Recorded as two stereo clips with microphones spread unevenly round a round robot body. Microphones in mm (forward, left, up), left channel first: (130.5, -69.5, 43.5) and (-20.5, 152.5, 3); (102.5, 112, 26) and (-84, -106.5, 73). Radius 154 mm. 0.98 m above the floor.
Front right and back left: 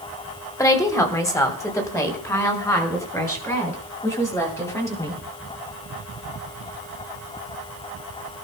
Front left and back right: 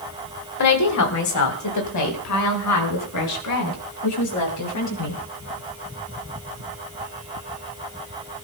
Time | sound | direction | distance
0.6 | a woman speaking | 25° left | 2.5 m